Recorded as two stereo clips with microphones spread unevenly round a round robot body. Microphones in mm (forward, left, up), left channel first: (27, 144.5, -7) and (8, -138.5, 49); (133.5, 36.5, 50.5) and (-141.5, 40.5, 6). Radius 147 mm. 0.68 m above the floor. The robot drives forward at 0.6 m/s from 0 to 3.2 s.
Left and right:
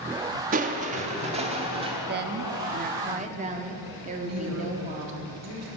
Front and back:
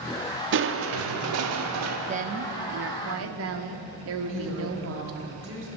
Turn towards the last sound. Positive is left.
turn(degrees=-135)